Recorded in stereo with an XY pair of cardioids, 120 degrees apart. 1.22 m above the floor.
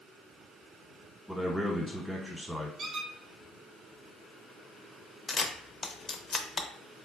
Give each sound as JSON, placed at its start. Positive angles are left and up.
{"t": 1.3, "sound": "a man speaking", "azimuth_deg": 0, "distance_m": 1.1}
{"t": 2.8, "sound": "a squeak", "azimuth_deg": -45, "distance_m": 0.9}
{"t": 5.3, "sound": "a camera shutter", "azimuth_deg": 35, "distance_m": 0.5}